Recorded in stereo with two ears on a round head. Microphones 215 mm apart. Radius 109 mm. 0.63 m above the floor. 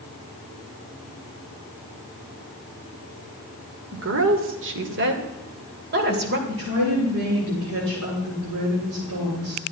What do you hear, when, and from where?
3.9 s a woman speaking: 60° right (ahead or behind), 1.9 m; by 6.4 s 45° right (ahead or behind), 3 m
6.5 s a woman speaking: 65° right (ahead or behind), 7 m